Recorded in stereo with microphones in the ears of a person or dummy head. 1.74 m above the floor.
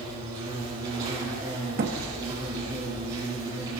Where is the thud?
50° right (ahead or behind), 1.5 m.